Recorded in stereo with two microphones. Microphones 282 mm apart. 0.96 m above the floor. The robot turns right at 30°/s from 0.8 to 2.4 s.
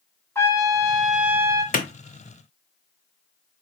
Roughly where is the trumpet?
Centre.